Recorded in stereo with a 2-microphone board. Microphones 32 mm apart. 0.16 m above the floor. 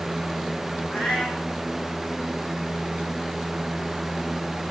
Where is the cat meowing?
30° left (ahead or behind), 4.5 m.